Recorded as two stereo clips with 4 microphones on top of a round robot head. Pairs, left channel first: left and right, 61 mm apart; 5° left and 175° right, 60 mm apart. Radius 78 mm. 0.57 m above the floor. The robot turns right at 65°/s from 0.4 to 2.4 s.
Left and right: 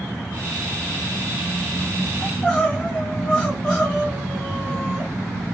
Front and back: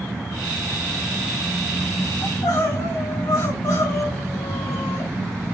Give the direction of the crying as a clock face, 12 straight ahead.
12 o'clock.